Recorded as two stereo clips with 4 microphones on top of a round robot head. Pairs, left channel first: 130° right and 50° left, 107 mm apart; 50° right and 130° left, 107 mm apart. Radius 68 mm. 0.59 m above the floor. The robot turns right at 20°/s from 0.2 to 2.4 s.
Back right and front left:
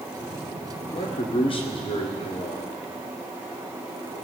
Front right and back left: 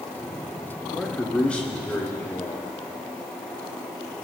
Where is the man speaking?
140° right, 1.7 m; by 2.6 s 110° right, 1.7 m.